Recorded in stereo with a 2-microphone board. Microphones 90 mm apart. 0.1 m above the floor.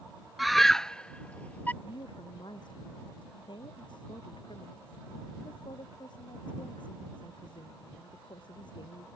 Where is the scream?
Centre (ahead or behind); by 1.7 s 20° left (ahead or behind).